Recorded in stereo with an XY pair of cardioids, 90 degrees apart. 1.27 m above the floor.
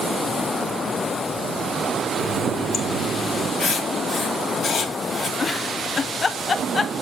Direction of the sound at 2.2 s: 60° left.